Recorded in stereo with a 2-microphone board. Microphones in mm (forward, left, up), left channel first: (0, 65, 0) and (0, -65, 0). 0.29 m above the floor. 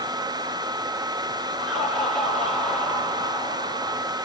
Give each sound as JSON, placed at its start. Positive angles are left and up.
{"t": 1.6, "sound": "laughter", "side_deg": 0, "distance_m": 6.0}